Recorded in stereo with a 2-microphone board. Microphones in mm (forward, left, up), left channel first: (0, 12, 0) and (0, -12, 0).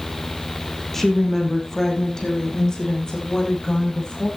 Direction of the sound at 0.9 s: 10° left (ahead or behind).